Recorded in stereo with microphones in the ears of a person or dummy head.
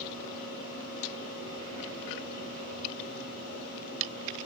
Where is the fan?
80° left, 5.5 m.